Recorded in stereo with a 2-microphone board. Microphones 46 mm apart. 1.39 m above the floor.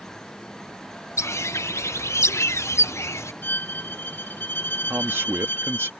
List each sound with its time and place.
1.2 s a bird: 85° left
3.4 s a violin: 50° left (ahead or behind)
4.9 s a man speaking: 55° right (ahead or behind)